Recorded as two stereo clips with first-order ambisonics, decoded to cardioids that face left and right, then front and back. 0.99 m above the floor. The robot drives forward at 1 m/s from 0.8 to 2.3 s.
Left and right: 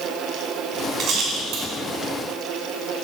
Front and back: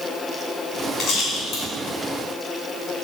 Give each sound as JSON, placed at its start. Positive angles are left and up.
{"t": 1.0, "sound": "a rattle", "azimuth_deg": -40, "distance_m": 2.0}